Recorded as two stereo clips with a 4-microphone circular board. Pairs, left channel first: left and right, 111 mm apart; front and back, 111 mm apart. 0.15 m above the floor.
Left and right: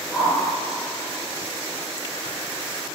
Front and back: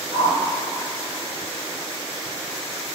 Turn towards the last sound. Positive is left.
turn(degrees=-170)